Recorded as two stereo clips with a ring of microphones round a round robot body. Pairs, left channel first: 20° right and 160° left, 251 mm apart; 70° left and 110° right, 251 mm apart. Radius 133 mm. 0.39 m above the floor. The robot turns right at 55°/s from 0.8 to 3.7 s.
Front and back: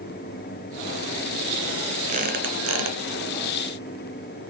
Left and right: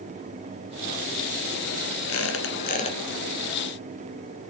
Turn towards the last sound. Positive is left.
turn(degrees=180)